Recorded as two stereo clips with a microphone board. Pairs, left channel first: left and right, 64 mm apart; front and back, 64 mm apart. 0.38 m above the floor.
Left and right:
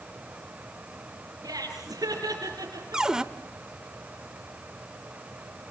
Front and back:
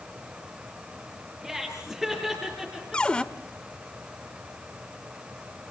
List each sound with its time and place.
1.4 s laughter: 90° right, 5.5 m
2.9 s a cupboard door: 35° right, 0.9 m